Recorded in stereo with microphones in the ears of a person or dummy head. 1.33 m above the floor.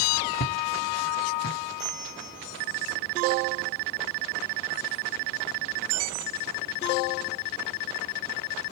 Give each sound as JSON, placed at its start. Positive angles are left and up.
{"t": 0.4, "sound": "footsteps", "side_deg": 55, "distance_m": 3.0}
{"t": 1.8, "sound": "a bell", "side_deg": 20, "distance_m": 0.9}